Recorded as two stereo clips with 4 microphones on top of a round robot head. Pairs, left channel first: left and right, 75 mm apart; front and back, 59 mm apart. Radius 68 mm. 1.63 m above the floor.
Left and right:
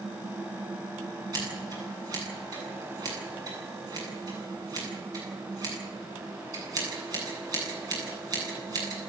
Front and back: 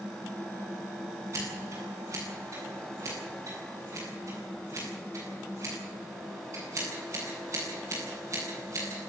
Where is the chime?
I don't hear a chime.